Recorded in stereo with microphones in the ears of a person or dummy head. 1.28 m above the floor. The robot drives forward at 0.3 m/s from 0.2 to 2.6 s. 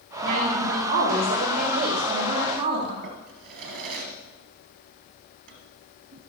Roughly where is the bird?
I don't hear a bird.